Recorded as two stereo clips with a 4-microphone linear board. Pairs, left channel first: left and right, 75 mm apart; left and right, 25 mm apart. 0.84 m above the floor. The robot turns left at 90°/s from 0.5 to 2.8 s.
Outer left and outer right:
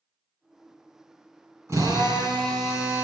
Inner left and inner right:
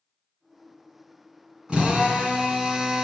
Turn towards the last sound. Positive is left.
turn(degrees=-135)